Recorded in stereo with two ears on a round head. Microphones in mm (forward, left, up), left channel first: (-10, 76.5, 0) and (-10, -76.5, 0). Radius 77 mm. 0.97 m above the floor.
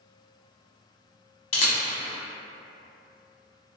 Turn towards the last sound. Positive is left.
turn(degrees=35)  # may be behind; listen again after turning